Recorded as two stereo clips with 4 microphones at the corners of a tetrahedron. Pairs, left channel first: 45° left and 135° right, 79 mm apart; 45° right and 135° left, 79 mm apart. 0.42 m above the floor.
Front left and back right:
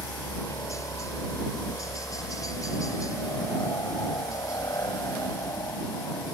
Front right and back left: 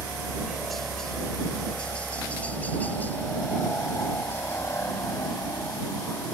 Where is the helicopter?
55° left; by 6.3 s 5° left.